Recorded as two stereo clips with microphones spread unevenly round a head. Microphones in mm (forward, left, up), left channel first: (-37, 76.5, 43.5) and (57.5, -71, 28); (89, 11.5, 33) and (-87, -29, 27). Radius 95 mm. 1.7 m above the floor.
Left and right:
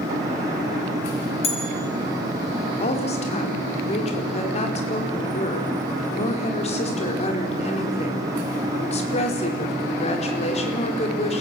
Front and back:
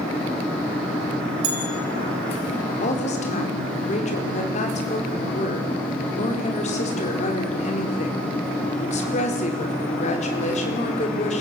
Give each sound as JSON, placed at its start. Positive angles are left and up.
{"t": 1.4, "sound": "a bell", "azimuth_deg": 180, "distance_m": 4.5}
{"t": 2.8, "sound": "a woman speaking", "azimuth_deg": 70, "distance_m": 4.5}